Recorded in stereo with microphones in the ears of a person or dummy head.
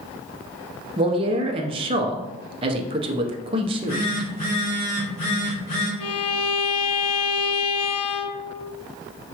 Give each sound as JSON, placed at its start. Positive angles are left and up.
{"t": 1.0, "sound": "a man speaking", "side_deg": -25, "distance_m": 0.6}
{"t": 3.6, "sound": "a phone buzzing", "side_deg": 30, "distance_m": 1.4}
{"t": 6.0, "sound": "a violin", "side_deg": 80, "distance_m": 0.5}